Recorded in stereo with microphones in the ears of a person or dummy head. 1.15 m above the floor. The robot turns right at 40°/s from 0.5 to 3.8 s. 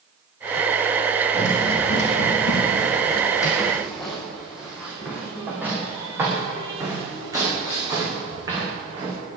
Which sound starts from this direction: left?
Running footsteps, at 1.3 s.